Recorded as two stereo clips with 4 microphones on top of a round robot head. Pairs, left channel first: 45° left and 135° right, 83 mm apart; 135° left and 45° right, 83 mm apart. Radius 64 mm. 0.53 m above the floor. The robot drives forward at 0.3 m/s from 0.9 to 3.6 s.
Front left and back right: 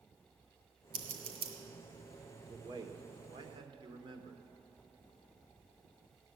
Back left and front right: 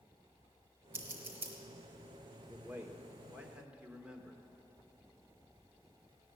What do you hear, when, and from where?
0.9 s scissors: 110° right, 2 m; by 1.5 s 115° right, 2 m
2.5 s a man speaking: 110° right, 1.4 m; by 4.4 s 125° right, 1.6 m